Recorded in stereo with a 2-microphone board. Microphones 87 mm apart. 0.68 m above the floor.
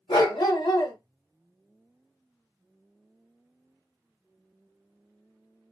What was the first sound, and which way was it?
A dog barking, 60° left (ahead or behind).